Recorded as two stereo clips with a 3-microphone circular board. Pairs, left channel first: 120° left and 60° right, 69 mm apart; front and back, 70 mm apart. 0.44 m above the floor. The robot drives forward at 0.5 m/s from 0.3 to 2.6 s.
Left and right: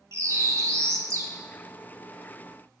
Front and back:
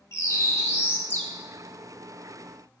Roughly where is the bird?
Ahead right.